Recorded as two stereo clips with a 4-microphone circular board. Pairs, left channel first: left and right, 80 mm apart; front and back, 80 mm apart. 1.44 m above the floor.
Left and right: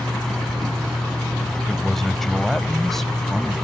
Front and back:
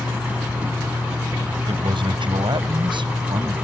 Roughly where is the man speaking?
Behind.